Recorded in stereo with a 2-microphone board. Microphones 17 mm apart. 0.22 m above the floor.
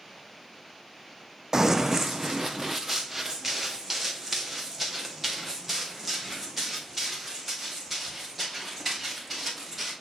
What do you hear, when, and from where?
1.5 s running footsteps: 35° right (ahead or behind), 0.5 m; by 9.9 s 10° right (ahead or behind), 6.5 m